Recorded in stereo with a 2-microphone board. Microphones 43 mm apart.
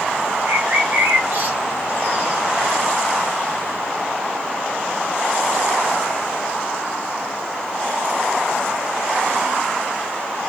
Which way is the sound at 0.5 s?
50° right (ahead or behind).